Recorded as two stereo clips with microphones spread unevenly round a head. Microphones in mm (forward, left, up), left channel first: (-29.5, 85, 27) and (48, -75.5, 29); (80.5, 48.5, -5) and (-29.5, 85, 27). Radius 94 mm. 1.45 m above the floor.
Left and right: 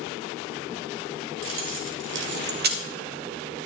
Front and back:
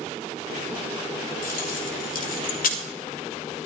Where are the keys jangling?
50° right, 2 m; by 2.8 s 25° right, 1.4 m.